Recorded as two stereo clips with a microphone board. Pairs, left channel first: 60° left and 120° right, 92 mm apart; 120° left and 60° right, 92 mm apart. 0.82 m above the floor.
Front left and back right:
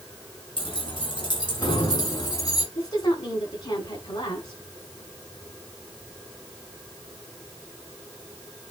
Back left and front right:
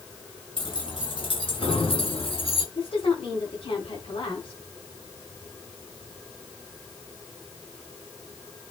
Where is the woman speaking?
95° left, 7 m.